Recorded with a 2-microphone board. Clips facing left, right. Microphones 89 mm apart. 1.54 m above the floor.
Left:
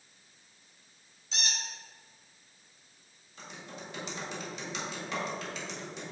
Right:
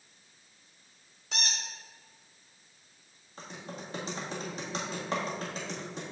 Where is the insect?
No insect in this recording.